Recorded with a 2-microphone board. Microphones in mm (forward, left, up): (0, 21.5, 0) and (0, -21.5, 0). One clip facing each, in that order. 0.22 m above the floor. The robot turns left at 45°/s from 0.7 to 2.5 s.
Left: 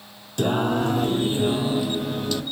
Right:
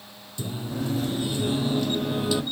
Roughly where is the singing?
Ahead left.